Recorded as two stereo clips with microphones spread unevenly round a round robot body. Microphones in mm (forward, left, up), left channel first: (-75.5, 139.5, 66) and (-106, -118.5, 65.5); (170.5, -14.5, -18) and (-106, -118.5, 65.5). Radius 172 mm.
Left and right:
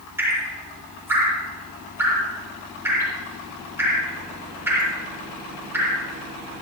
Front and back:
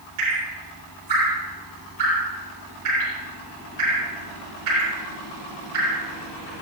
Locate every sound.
0.2 s dripping: straight behind, 9 m